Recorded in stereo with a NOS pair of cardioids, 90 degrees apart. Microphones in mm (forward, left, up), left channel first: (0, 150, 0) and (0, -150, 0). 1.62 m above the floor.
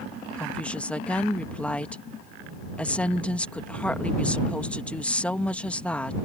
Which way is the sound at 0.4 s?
5° left.